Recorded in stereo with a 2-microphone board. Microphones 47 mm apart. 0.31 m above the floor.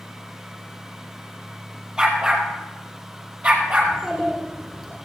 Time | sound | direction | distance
2.0 | a dog barking | 20° right (ahead or behind) | 3 m
3.8 | a child speaking | 15° right (ahead or behind) | 2.5 m